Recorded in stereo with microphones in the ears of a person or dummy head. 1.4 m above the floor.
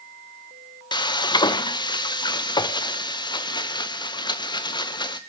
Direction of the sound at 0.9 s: 15° left (ahead or behind).